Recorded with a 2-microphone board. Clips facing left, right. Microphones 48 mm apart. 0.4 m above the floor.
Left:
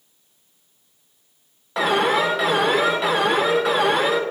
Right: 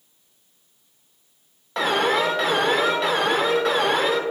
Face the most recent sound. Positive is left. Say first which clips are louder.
# left 2 dB
turn(degrees=5)  # may be behind; listen again after turning